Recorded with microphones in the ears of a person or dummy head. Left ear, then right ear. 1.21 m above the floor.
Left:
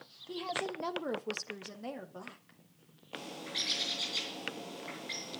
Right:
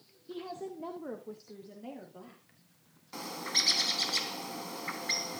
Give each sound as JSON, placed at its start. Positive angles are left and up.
{"t": 0.3, "sound": "a woman speaking", "side_deg": 20, "distance_m": 1.4}
{"t": 3.1, "sound": "a bird", "side_deg": -50, "distance_m": 3.0}